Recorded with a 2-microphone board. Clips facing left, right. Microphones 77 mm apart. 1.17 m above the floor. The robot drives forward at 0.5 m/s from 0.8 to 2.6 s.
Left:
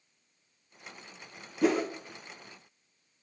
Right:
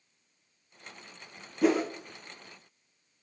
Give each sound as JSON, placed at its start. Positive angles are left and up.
{"t": 1.6, "sound": "a whoosh", "side_deg": 0, "distance_m": 0.8}